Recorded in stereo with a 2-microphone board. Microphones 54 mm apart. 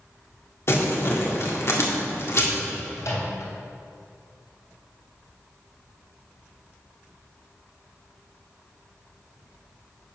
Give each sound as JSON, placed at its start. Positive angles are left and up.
{"t": 0.7, "sound": "crumpling", "side_deg": 50, "distance_m": 1.8}
{"t": 3.0, "sound": "a microwave", "side_deg": 65, "distance_m": 3.0}